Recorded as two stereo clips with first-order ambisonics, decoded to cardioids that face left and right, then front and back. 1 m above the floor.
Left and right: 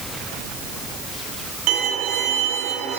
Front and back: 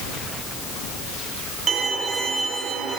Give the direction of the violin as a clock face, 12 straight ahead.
4 o'clock.